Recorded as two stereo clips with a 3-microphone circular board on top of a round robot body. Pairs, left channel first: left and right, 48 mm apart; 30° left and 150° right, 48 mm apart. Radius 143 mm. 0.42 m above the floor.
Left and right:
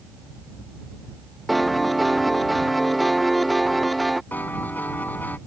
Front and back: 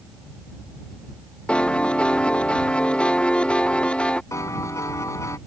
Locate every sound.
1.5 s a piano: straight ahead
4.3 s a piano: 35° left